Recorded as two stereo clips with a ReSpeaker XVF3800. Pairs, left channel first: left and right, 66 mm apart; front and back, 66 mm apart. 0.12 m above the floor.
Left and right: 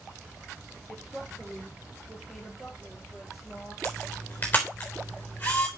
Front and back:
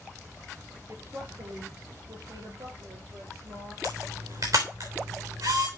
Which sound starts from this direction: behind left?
A camera shutter, at 3.8 s.